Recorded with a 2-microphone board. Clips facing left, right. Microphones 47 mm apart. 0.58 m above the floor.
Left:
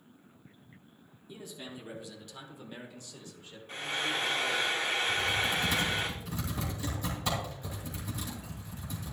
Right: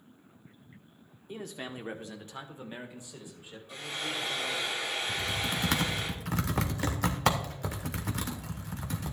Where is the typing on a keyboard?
70° right (ahead or behind), 1.2 m.